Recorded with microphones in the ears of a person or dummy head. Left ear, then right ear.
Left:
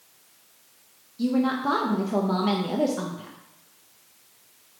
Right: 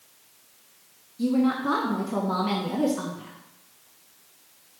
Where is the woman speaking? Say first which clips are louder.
Even; 15° left (ahead or behind), 0.5 m.